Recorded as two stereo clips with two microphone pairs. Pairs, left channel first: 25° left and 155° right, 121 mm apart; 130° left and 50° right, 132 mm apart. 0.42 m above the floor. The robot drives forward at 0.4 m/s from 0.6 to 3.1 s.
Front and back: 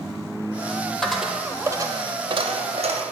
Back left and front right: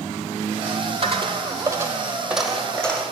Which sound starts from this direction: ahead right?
A dropped coin, at 1.0 s.